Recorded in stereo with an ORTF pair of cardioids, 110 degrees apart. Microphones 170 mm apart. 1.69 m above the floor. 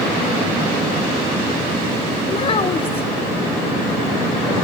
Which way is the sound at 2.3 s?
35° left.